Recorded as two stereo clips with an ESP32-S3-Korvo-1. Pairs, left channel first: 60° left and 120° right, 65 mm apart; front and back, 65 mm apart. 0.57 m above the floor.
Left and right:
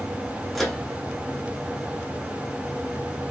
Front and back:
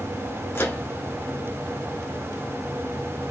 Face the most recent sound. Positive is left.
turn(degrees=-25)